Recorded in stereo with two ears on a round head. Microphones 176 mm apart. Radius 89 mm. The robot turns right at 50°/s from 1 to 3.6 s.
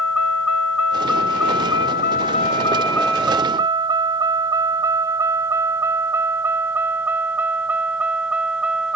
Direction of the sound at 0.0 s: 85° left.